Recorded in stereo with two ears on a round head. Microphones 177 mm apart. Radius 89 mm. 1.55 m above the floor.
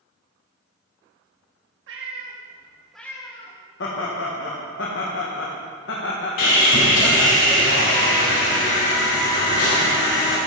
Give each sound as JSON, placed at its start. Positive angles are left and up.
{"t": 1.9, "sound": "a cat meowing", "side_deg": -65, "distance_m": 1.6}
{"t": 3.8, "sound": "laughter", "side_deg": 65, "distance_m": 1.2}
{"t": 6.4, "sound": "sawing", "side_deg": 65, "distance_m": 3.5}